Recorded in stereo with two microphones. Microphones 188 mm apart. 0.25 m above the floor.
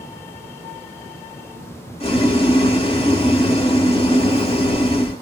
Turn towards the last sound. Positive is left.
turn(degrees=30)  # may be behind; listen again after turning